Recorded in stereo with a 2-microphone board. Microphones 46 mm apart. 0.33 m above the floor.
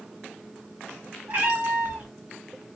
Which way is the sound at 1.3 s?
40° right (ahead or behind).